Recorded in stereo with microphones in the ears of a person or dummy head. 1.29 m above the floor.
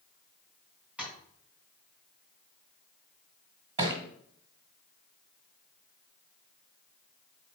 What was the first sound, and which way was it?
Tapping, 10° right (ahead or behind).